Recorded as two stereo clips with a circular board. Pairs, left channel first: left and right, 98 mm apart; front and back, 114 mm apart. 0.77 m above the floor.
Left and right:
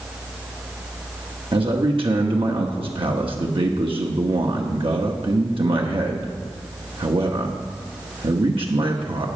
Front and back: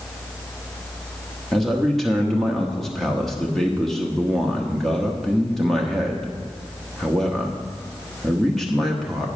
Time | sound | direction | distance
1.5 | a man speaking | 90° right | 1.1 m